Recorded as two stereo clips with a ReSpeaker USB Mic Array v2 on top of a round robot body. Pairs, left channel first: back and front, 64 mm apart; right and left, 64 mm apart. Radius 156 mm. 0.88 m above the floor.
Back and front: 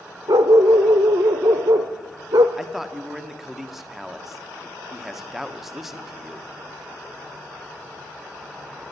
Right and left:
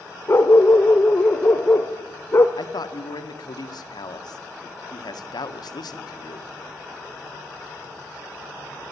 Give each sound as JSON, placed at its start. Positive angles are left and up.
{"t": 0.3, "sound": "a dog barking", "azimuth_deg": -35, "distance_m": 1.0}
{"t": 2.6, "sound": "a man speaking", "azimuth_deg": -85, "distance_m": 1.7}